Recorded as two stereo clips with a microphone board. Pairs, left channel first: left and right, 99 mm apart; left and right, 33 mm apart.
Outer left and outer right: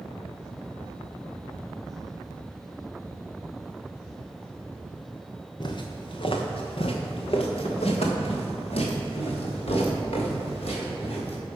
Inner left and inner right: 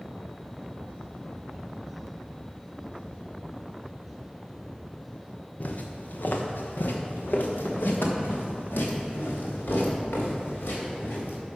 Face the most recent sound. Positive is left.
turn(degrees=75)  # may be behind; listen again after turning